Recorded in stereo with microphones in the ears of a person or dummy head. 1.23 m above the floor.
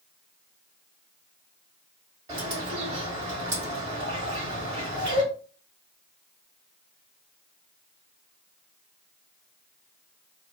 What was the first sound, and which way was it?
A bird, 25° right (ahead or behind).